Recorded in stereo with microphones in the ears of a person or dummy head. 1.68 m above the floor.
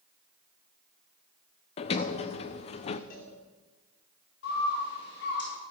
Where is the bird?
70° left (ahead or behind), 6.5 m.